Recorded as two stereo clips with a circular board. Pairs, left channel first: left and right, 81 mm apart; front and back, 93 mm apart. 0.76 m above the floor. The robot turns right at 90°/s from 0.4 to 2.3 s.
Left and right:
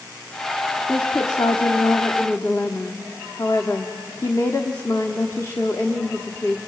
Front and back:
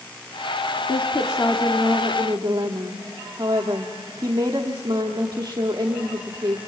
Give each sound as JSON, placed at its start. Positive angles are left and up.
{"t": 0.9, "sound": "a woman speaking", "azimuth_deg": 20, "distance_m": 1.2}